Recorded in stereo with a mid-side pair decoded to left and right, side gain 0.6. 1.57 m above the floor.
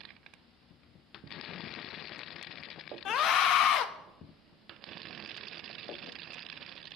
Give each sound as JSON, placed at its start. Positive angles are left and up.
{"t": 3.0, "sound": "a scream", "azimuth_deg": 55, "distance_m": 0.9}